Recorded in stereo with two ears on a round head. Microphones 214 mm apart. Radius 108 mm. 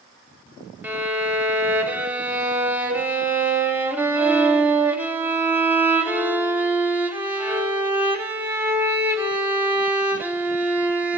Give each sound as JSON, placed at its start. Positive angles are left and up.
{"t": 0.8, "sound": "a violin", "side_deg": -10, "distance_m": 0.6}